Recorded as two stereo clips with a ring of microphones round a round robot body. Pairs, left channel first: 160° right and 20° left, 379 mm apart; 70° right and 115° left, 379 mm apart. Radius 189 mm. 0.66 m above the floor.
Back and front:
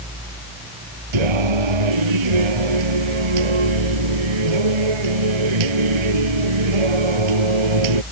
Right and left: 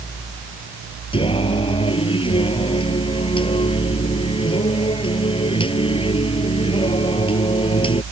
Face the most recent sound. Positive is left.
turn(degrees=10)